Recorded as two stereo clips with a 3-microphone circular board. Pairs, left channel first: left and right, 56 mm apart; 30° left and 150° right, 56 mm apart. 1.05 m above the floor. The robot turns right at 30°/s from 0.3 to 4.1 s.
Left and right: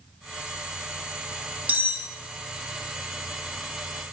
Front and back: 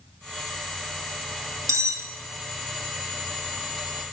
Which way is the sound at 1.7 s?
145° right.